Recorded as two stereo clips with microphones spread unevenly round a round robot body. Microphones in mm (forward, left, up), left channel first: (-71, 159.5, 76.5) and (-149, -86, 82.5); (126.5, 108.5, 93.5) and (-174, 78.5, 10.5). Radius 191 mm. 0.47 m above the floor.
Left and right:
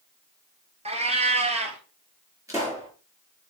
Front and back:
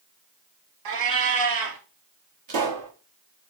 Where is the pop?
175° left, 5 m.